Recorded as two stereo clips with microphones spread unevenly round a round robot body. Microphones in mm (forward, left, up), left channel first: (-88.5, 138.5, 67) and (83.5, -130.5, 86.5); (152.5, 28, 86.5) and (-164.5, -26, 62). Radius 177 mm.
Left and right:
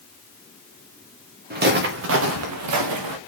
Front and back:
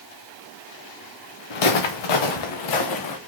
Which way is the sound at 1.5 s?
5° left.